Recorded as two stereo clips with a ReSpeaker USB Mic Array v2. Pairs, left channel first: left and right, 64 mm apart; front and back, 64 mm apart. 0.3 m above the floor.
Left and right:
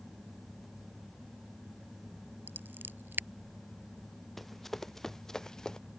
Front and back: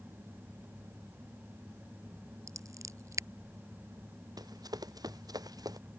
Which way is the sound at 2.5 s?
145° right.